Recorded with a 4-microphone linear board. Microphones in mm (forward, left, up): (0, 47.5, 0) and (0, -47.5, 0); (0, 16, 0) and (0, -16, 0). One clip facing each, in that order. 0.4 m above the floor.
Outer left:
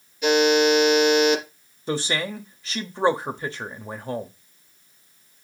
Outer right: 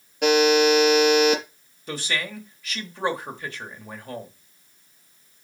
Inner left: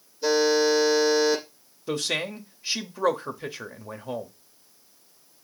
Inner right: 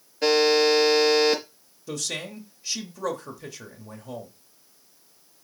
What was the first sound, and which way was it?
A buzzer, 70° right (ahead or behind).